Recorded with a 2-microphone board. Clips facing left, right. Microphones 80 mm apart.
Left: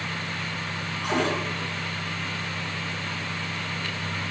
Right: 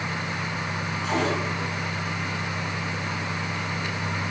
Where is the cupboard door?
55° left (ahead or behind), 5.5 m.